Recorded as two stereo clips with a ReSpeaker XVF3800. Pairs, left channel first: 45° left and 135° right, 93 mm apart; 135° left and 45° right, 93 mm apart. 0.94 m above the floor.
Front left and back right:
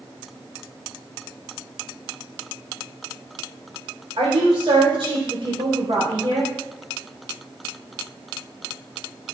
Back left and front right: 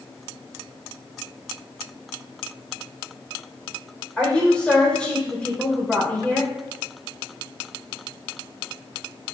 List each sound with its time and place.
4.2 s a woman speaking: 145° right, 3.5 m